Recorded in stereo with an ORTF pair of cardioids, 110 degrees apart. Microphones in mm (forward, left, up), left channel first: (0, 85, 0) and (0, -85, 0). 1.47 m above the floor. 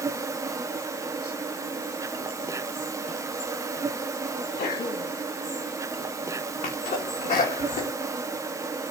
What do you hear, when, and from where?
0.0 s an insect: 20° right, 0.8 m
4.3 s a sneeze: 55° left, 3 m
6.6 s a sneeze: 45° left, 3 m